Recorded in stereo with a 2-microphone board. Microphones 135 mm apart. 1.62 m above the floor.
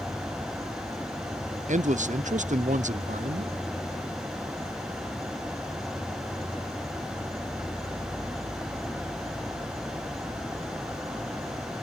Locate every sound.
0.0 s an insect: 25° right (ahead or behind)
1.7 s a man speaking: 65° right (ahead or behind)